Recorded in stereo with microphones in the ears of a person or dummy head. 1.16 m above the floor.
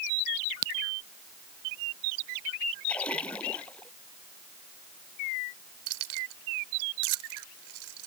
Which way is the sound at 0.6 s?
60° right (ahead or behind).